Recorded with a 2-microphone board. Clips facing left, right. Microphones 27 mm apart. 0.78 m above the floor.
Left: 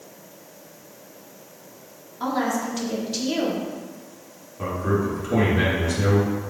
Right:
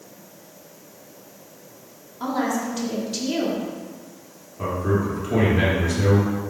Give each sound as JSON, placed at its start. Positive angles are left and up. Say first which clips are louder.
{"t": 2.2, "sound": "a woman speaking", "louder": "even", "side_deg": 5, "distance_m": 1.7}
{"t": 4.6, "sound": "a man speaking", "louder": "right 1 dB", "side_deg": -5, "distance_m": 2.5}